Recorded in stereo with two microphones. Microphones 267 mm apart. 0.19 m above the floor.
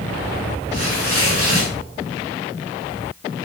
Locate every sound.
0.7 s tearing paper: 60° right (ahead or behind), 9.5 m